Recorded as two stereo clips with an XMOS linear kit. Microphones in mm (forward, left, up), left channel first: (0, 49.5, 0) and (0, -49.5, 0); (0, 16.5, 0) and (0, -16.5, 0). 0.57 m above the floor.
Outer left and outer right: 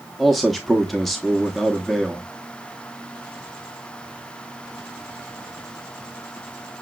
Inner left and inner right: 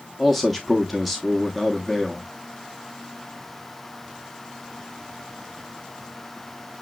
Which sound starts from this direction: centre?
A man speaking, at 0.2 s.